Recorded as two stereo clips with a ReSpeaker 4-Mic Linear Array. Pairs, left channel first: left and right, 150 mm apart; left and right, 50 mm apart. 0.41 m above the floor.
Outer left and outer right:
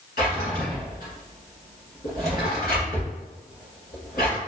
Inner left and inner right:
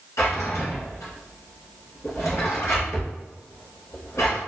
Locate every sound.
0.2 s a drawer: 85° left, 1.2 m